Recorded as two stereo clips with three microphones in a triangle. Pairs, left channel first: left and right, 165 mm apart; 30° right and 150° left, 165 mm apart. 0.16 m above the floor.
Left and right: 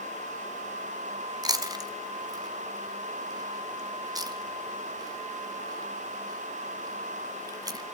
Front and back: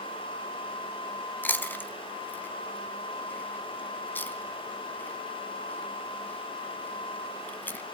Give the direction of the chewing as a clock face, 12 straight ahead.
3 o'clock.